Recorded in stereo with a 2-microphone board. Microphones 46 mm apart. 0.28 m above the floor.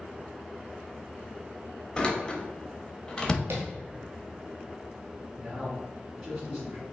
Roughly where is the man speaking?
Right.